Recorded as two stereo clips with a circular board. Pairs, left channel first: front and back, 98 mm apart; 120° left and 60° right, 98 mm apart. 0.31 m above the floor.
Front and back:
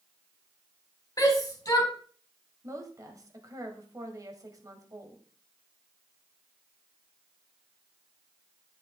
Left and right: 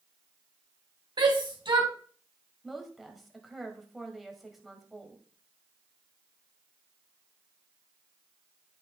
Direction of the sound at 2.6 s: 150° right.